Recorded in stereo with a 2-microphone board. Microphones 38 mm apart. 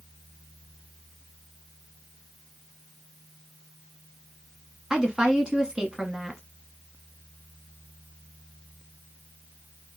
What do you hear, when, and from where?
4.9 s a woman speaking: 20° right (ahead or behind), 1.0 m